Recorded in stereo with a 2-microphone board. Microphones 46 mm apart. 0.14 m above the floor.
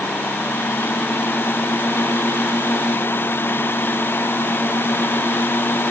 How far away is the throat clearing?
No throat clearing in this recording.